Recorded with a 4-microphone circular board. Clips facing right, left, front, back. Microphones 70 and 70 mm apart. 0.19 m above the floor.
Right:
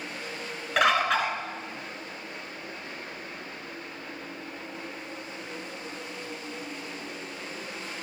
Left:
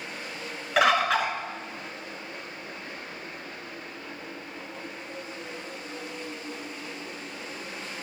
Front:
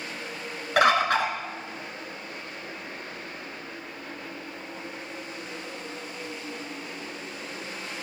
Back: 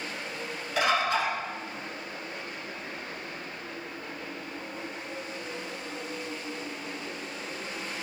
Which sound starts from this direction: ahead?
A bird, at 0.8 s.